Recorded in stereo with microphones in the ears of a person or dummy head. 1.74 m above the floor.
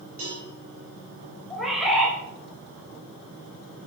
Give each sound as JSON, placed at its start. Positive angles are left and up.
{"t": 0.2, "sound": "a cowbell", "side_deg": -40, "distance_m": 4.0}
{"t": 1.5, "sound": "a bird", "side_deg": 0, "distance_m": 4.0}